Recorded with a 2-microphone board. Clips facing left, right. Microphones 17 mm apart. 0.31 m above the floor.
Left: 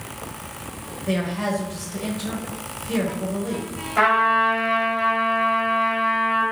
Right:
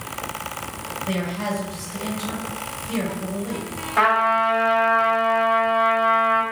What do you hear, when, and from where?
1.1 s a man speaking: 20° left (ahead or behind), 0.9 m
4.0 s a trumpet: 5° right (ahead or behind), 1.8 m